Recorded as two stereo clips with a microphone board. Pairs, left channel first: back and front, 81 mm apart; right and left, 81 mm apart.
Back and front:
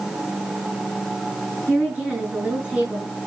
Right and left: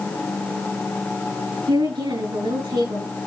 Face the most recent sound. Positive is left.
turn(degrees=70)